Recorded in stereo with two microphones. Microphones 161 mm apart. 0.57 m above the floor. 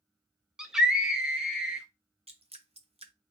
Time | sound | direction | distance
0.6 | a scream | 5° right (ahead or behind) | 0.7 m
2.3 | dripping | 40° right (ahead or behind) | 0.7 m